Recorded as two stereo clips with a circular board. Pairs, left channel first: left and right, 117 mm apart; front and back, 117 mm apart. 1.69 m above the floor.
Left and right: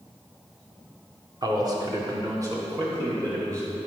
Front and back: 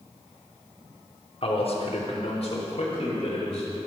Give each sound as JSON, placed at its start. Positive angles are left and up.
{"t": 1.4, "sound": "a man speaking", "azimuth_deg": -35, "distance_m": 1.6}